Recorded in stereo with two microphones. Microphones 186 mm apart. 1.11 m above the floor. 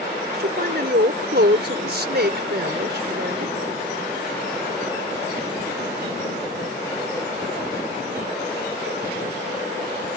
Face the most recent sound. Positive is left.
turn(degrees=-60)  # may be behind; listen again after turning